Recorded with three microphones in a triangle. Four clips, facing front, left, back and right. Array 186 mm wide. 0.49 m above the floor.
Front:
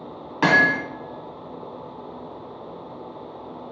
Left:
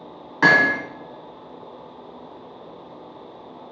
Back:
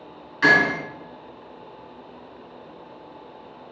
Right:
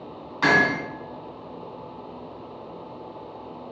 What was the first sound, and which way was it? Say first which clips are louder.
Hammering: left 3 dB, front 1 dB; 45° left.